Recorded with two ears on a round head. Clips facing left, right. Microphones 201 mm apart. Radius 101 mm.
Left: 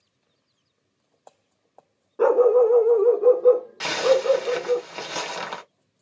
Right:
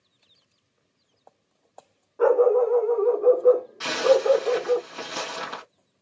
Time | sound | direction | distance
2.2 | a dog barking | 50° left (ahead or behind) | 0.8 m
3.8 | a zipper | 75° left (ahead or behind) | 2 m